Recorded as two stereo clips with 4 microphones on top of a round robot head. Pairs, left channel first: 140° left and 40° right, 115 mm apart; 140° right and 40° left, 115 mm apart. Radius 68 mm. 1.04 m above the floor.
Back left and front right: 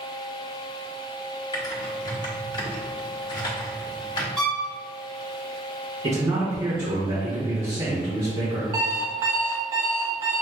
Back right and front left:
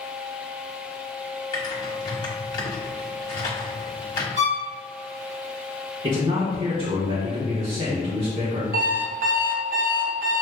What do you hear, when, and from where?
1.5 s typing on a keyboard: straight behind, 1.1 m
4.4 s a violin: 55° left, 1.3 m
6.0 s a man speaking: straight ahead, 1.3 m
8.7 s an alarm clock: 25° left, 0.7 m